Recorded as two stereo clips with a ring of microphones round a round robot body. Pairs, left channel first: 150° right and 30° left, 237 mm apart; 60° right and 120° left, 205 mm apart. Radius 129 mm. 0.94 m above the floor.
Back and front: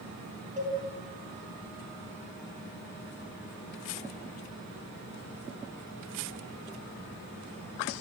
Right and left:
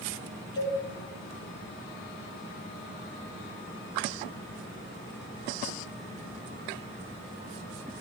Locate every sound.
0.6 s a cowbell: 30° right, 4.5 m